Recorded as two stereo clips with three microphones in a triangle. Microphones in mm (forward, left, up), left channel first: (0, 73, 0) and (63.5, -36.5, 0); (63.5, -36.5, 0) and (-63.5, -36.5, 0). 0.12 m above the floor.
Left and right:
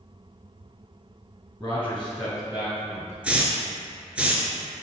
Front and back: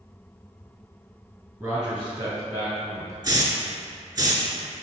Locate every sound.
1.6 s a man speaking: 105° left, 1.2 m; by 3.1 s 125° right, 1.8 m
3.2 s a hiss: 135° right, 0.6 m